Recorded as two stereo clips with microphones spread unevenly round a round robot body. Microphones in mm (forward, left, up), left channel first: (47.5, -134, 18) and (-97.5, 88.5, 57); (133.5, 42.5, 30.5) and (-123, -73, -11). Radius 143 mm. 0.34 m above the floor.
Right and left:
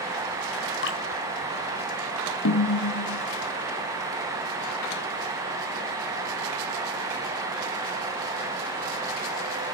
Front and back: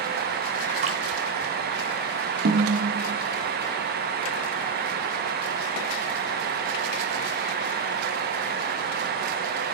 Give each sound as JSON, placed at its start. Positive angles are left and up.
{"t": 0.8, "sound": "dripping", "azimuth_deg": -95, "distance_m": 3.0}
{"t": 2.5, "sound": "a snare drum", "azimuth_deg": -100, "distance_m": 2.0}